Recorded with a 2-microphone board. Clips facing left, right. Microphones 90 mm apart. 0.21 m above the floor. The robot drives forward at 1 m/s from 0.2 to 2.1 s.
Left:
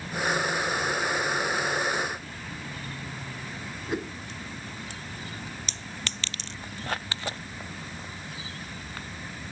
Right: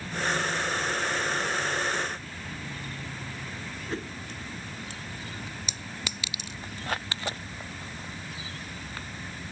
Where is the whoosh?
15° left (ahead or behind).